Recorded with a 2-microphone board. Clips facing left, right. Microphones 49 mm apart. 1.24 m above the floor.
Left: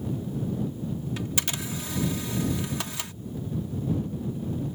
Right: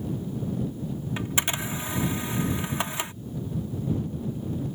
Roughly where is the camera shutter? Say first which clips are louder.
Right 3 dB; right.